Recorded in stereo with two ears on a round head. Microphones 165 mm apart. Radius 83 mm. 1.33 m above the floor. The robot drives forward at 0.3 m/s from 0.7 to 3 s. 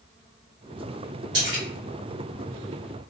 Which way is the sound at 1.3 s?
75° right (ahead or behind).